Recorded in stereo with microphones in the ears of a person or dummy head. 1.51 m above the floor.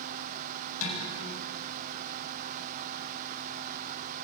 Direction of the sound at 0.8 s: 75° left (ahead or behind).